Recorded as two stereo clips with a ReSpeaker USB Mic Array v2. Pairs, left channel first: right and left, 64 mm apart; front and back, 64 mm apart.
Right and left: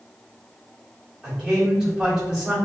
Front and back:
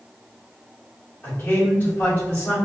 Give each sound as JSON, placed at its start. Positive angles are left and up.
{"t": 1.2, "sound": "a man speaking", "azimuth_deg": 25, "distance_m": 1.5}